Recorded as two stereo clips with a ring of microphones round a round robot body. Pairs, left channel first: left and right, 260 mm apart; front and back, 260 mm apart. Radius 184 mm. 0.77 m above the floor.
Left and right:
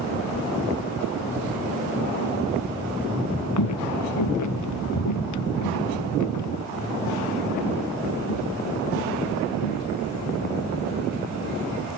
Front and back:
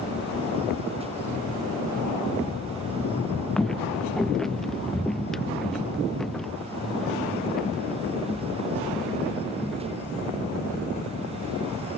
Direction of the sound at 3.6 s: 90° left.